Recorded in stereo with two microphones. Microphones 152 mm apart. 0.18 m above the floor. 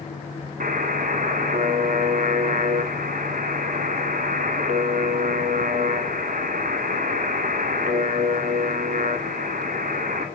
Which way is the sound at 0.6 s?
60° right (ahead or behind).